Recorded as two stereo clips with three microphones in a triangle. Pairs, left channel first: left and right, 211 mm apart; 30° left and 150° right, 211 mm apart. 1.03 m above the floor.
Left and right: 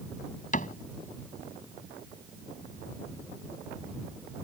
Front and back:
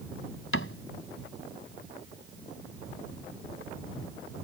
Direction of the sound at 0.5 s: 40° left.